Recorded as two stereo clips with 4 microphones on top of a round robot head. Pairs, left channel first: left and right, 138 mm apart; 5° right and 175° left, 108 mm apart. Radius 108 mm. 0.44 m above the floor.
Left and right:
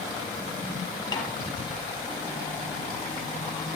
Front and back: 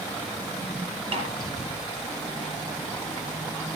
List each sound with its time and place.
1.1 s a snare drum: 150° left, 5.5 m